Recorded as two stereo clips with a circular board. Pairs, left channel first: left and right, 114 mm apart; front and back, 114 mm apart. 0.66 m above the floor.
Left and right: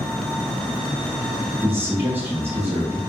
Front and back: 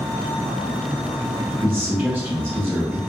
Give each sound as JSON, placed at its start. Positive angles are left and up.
{"t": 1.6, "sound": "a man speaking", "azimuth_deg": -130, "distance_m": 1.0}